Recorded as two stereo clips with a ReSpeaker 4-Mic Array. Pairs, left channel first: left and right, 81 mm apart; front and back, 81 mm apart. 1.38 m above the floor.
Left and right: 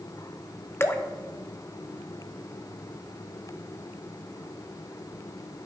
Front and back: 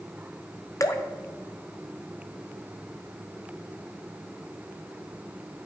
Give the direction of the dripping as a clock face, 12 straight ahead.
11 o'clock.